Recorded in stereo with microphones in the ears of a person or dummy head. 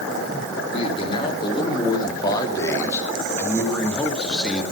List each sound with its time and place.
0.7 s a man speaking: 30° left (ahead or behind), 4 m; by 4.6 s centre (ahead or behind), 3.5 m